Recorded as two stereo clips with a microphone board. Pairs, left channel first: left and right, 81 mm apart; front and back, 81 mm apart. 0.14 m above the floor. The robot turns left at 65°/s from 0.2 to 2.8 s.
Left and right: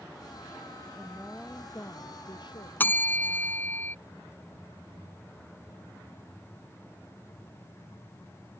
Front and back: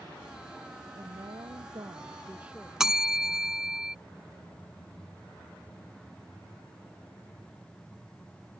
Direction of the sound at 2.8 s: 105° left.